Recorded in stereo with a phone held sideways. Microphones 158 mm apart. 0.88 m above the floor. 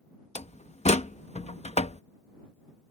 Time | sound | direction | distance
0.3 | a door slam | 45° left (ahead or behind) | ?